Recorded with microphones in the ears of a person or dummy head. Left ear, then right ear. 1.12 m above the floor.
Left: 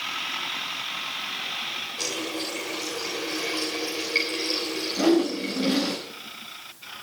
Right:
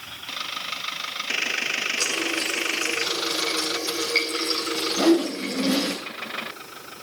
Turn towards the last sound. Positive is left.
turn(degrees=-10)  # may be behind; listen again after turning